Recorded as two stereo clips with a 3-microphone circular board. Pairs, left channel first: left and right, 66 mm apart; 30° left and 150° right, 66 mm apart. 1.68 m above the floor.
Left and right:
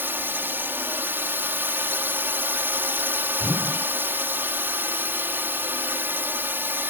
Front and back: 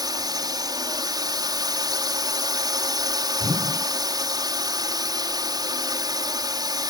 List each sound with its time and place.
0.0 s a drone: 150° right
3.4 s a whoosh: 155° right